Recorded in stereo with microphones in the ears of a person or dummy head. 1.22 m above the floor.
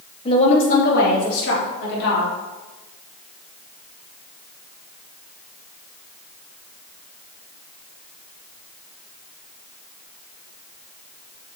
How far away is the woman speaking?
About 1.9 m.